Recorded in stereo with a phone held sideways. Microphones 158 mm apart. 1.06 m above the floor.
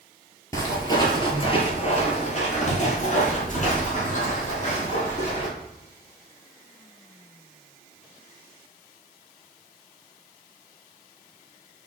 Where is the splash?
I don't hear a splash.